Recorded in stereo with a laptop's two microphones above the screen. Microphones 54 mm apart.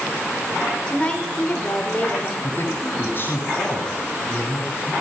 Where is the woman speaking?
20° left (ahead or behind), 4 m; by 2.3 s 35° left (ahead or behind), 4 m.